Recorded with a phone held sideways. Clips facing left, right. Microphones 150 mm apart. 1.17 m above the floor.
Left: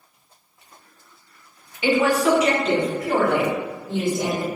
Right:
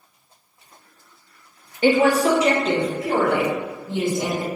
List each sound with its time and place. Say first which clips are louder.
1.8 s a woman speaking: right 2 dB; 45° right (ahead or behind), 0.6 m; by 4.5 s 20° right (ahead or behind), 1.9 m